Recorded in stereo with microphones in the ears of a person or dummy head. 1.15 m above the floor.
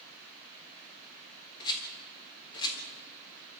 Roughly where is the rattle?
Left.